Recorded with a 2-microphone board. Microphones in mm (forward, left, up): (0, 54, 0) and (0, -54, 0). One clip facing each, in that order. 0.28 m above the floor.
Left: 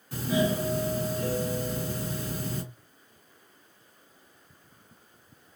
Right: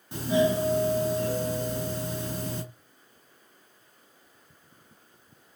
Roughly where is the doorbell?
Right.